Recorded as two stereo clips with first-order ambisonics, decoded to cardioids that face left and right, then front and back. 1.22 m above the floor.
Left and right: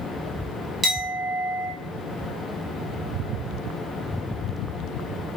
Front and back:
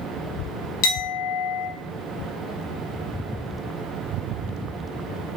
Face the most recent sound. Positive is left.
turn(degrees=-20)